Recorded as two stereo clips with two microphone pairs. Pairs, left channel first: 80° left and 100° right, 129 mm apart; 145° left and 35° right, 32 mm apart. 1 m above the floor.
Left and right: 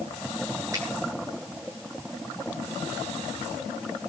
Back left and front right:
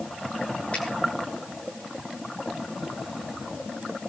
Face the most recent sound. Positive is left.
turn(degrees=-165)